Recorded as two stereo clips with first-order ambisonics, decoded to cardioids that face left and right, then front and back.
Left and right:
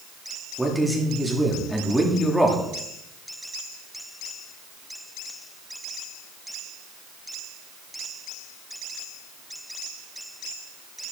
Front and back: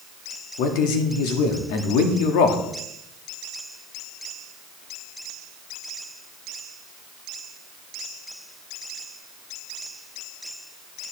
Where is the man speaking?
Straight ahead, 1.8 m.